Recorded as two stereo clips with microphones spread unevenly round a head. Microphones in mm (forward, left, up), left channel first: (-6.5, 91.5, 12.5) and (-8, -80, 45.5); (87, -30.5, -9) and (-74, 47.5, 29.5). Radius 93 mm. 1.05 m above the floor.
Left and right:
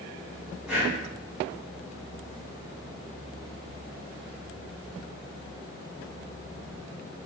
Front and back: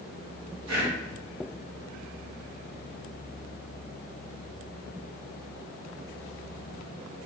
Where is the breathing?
Straight behind, 1.9 m.